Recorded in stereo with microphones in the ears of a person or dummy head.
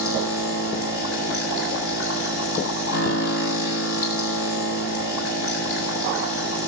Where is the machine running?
85° left, 7.5 m.